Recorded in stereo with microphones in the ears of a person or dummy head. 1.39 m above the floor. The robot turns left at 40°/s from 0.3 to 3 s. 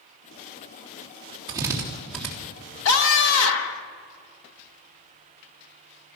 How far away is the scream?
About 1.7 m.